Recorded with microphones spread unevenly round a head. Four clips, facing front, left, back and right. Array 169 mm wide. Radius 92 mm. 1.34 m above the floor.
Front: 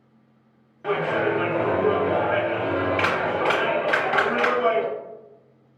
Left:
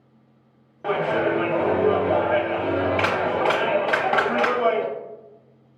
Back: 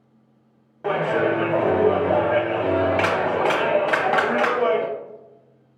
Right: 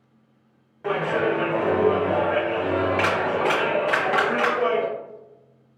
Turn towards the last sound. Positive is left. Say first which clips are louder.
# left 1 dB, back 2 dB
turn(degrees=145)